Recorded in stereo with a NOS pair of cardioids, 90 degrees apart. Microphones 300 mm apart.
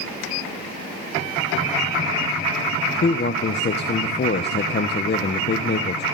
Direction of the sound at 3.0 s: 35° left.